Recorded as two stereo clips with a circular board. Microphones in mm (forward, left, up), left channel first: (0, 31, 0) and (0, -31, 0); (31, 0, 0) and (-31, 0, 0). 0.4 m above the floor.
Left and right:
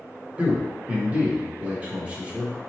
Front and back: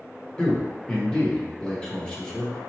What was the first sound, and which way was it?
A man speaking, 55° right.